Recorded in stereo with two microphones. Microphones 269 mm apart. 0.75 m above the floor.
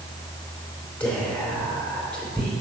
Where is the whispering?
5° left (ahead or behind), 2.5 m.